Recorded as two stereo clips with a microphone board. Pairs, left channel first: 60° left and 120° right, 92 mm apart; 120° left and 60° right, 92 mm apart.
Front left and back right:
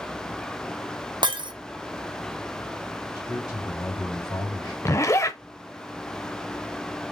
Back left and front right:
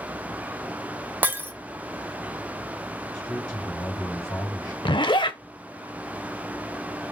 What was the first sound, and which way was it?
Breaking glass, 125° right.